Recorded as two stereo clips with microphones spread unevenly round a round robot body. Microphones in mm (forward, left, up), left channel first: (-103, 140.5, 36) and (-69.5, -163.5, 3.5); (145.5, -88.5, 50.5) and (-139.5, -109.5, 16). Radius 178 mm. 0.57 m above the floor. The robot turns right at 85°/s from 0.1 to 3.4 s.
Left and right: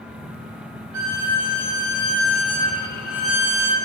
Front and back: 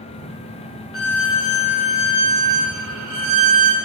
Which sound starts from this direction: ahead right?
A violin, at 0.9 s.